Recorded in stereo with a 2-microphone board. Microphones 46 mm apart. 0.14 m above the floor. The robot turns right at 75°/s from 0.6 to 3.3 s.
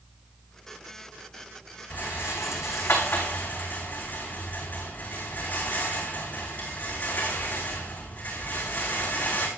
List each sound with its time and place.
1.9 s a rattle: 35° left (ahead or behind), 5.5 m; by 9.5 s 40° left (ahead or behind), 5.5 m